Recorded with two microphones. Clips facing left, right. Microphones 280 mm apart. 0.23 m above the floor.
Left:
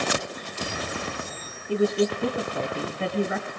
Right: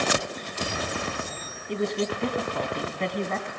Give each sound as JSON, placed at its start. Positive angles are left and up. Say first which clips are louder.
{"t": 1.7, "sound": "a woman speaking", "louder": "left 5 dB", "side_deg": 5, "distance_m": 1.9}